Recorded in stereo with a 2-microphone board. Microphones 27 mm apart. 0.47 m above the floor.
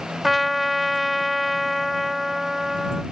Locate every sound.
0.2 s a trumpet: centre (ahead or behind)